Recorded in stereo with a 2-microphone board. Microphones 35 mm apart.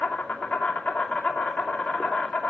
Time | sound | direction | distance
0.0 | an insect | 50° left (ahead or behind) | 2.5 m